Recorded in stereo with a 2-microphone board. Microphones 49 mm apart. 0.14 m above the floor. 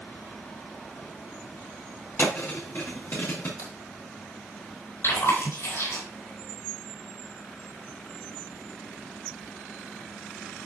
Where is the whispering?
No whispering in this recording.